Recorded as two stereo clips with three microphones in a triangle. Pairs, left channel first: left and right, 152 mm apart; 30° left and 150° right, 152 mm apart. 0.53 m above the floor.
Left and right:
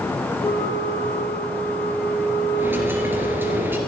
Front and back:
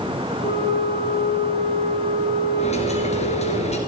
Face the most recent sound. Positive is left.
turn(degrees=-15)